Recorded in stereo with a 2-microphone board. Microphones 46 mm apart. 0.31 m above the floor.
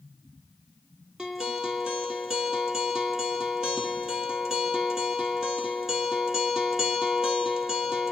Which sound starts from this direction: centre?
A guitar, at 1.2 s.